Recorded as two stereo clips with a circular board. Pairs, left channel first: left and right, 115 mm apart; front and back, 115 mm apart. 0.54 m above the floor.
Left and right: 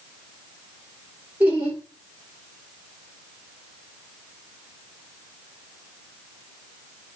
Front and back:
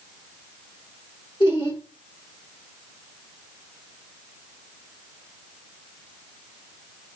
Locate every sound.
1.4 s laughter: 20° right, 1.7 m